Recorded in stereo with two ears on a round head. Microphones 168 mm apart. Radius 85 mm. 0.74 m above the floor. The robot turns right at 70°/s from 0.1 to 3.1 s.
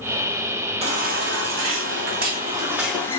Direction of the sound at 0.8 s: 150° right.